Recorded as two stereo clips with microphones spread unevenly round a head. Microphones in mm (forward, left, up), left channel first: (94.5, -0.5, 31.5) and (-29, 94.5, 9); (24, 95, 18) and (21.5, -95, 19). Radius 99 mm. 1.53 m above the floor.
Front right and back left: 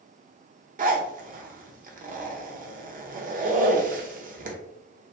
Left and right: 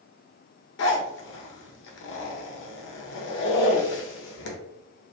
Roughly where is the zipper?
Behind left.